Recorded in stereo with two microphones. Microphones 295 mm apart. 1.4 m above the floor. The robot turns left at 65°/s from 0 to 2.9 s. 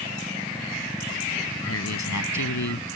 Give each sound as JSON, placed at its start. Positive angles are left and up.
{"t": 1.6, "sound": "a man speaking", "azimuth_deg": 135}